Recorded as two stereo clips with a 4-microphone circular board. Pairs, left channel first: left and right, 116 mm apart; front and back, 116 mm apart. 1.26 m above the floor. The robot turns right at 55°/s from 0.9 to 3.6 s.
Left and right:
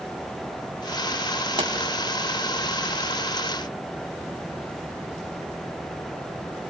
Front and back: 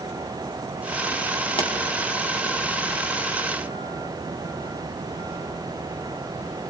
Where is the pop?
45° right, 1.8 m; by 1.7 s 35° right, 1.8 m.